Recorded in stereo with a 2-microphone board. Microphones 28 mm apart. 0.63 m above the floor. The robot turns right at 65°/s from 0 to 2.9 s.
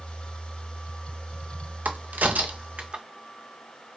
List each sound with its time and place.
1.9 s a crack: 75° right (ahead or behind), 0.5 m; by 3.0 s 40° right (ahead or behind), 0.5 m